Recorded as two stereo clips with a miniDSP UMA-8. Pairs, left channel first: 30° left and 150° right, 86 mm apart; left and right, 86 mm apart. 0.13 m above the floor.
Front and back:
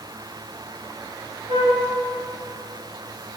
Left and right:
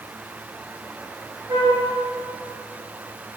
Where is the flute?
125° right, 3.5 m.